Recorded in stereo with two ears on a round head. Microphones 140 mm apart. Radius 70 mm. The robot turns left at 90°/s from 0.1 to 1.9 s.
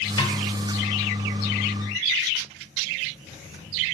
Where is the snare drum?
25° left (ahead or behind), 0.7 m; by 0.4 s 15° left (ahead or behind), 0.7 m.